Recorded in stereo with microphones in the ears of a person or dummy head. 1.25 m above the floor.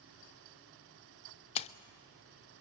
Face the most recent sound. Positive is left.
turn(degrees=35)  # may be behind; listen again after turning